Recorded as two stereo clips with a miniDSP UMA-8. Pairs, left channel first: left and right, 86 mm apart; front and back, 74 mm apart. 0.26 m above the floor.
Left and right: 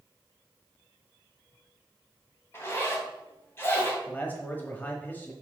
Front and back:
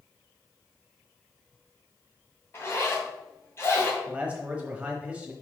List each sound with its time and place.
2.5 s a zipper: 40° left, 2.0 m
4.1 s a man speaking: 130° left, 1.2 m